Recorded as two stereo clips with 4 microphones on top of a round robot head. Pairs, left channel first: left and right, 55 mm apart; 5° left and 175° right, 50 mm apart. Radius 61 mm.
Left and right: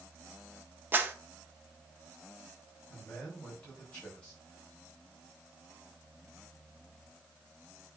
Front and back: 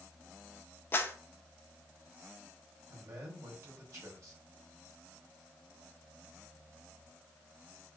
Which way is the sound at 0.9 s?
40° right.